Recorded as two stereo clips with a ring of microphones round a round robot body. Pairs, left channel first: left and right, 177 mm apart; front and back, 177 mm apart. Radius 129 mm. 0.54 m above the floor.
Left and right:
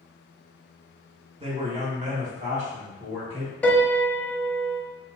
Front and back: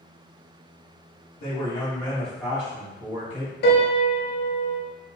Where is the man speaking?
45° right, 1.0 m; by 3.5 s 140° right, 1.1 m.